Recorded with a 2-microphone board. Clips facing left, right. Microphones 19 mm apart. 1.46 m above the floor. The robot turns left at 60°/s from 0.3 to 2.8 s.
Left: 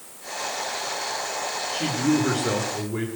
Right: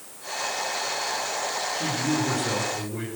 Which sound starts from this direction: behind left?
A man speaking, at 1.7 s.